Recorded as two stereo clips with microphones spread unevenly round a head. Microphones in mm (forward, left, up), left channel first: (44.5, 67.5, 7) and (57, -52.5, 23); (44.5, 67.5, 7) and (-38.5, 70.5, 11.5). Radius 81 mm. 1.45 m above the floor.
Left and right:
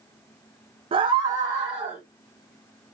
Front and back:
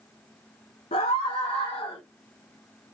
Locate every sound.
0.9 s a scream: 40° right, 0.7 m; by 2.0 s 10° right, 2.0 m